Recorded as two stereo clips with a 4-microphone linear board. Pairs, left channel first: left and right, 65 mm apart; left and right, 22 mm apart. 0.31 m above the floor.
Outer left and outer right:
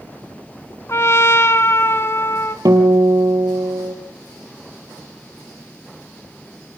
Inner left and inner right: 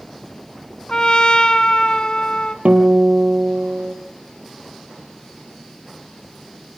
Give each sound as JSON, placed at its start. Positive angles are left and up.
{"t": 0.9, "sound": "a trumpet", "side_deg": 45, "distance_m": 1.0}
{"t": 2.6, "sound": "a guitar", "side_deg": -85, "distance_m": 3.0}